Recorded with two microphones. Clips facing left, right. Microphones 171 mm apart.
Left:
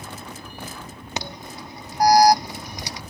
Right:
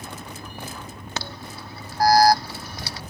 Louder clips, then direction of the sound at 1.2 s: Left 2 dB; 15° left (ahead or behind).